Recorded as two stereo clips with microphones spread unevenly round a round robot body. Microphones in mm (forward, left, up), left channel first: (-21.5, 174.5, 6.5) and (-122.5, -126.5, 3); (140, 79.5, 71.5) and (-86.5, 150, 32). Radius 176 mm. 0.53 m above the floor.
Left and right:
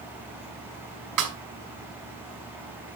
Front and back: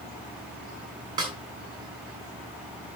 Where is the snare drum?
125° right, 2.5 m.